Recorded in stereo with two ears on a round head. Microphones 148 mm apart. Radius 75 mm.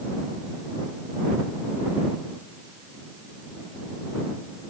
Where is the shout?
I don't hear a shout.